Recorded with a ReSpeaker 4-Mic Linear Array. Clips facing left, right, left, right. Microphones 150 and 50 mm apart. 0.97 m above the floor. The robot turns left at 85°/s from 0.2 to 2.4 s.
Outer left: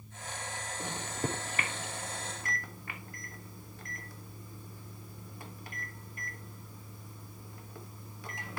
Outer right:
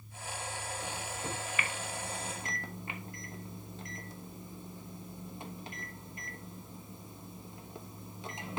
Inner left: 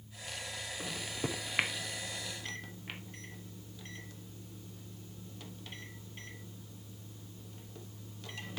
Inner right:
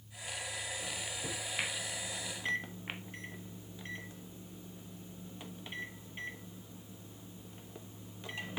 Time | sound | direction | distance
0.8 | a microwave | 60° left (ahead or behind) | 1.0 m